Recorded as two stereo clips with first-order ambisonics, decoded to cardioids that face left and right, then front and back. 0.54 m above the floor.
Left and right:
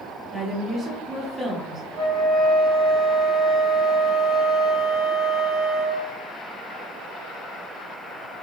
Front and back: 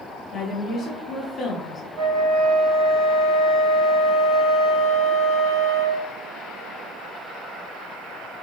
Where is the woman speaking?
35° right, 0.7 m.